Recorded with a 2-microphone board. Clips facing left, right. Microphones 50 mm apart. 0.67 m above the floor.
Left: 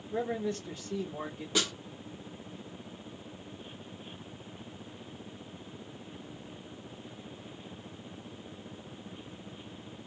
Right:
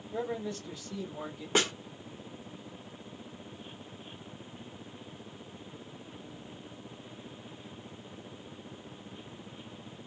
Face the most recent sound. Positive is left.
turn(degrees=-40)  # may be behind; listen again after turning